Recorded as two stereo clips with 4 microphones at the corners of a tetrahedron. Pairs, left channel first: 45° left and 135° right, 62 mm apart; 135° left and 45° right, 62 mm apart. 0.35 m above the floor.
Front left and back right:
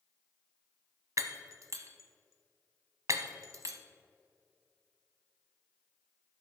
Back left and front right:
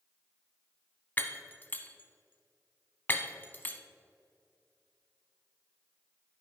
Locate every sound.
1.2 s breaking glass: 165° right, 0.7 m